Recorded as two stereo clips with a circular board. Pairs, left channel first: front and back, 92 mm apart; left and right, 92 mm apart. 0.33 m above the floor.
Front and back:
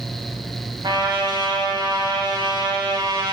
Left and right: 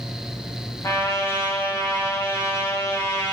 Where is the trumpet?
145° left, 0.5 m.